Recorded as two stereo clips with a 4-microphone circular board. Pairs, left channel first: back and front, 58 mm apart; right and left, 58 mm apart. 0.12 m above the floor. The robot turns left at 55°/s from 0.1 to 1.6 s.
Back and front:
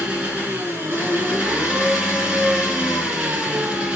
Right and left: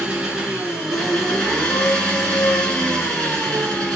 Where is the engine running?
40° left, 1.3 m; by 4.0 s 45° right, 1.3 m.